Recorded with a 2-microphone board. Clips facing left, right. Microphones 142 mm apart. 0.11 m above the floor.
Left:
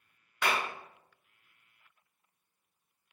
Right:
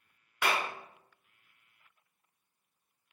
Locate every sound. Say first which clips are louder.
0.4 s a clap: even; 10° right (ahead or behind), 1.0 m